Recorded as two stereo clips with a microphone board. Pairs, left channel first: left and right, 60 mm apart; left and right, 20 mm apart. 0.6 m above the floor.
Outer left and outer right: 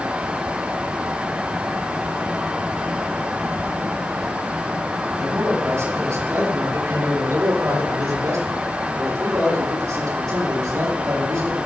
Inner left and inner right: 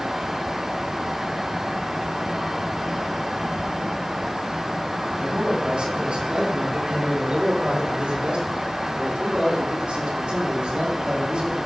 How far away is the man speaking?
About 4.5 m.